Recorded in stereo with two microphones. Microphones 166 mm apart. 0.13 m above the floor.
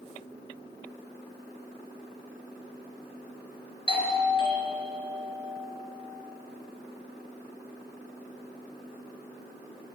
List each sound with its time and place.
3.9 s a doorbell: 30° left (ahead or behind), 3 m